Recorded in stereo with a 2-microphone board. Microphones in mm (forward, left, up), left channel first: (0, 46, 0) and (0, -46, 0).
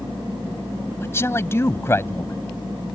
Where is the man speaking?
25° left (ahead or behind).